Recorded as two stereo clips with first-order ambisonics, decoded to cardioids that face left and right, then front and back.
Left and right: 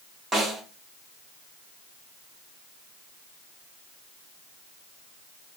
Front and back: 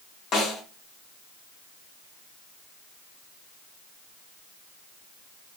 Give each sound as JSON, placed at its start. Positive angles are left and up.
{"t": 0.3, "sound": "a snare drum", "azimuth_deg": -25, "distance_m": 0.8}